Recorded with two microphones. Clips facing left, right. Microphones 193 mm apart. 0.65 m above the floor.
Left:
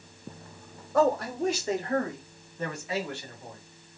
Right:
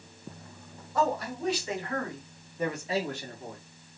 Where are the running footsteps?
No running footsteps in this recording.